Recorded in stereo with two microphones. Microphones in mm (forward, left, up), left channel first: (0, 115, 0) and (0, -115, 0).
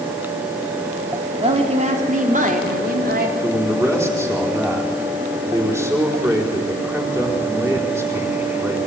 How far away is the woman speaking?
About 3.5 m.